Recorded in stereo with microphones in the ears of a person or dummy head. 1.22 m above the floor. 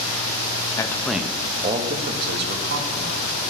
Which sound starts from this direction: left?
A man speaking, at 0.8 s.